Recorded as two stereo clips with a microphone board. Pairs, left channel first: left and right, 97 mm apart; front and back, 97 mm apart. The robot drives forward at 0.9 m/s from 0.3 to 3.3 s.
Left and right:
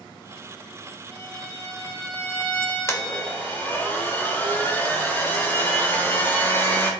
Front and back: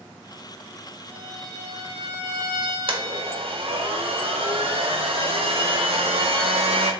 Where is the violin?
155° left, 3 m; by 3.7 s 165° left, 5 m.